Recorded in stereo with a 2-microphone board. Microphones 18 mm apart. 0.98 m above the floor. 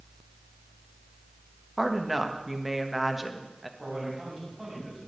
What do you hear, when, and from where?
1.8 s a woman speaking: centre (ahead or behind), 1.3 m
3.8 s a man speaking: 15° right (ahead or behind), 6.5 m